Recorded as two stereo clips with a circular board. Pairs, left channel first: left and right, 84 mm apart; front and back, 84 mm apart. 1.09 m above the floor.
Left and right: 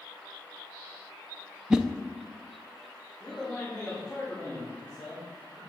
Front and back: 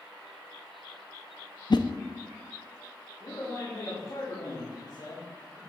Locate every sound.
1.7 s a whoosh: 10° right, 0.6 m
3.2 s a man speaking: 15° left, 3.5 m